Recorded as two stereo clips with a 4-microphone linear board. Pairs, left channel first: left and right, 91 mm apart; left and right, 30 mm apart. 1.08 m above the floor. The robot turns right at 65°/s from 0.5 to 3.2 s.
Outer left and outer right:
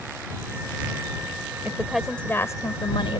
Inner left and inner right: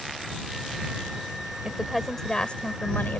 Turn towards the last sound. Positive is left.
turn(degrees=80)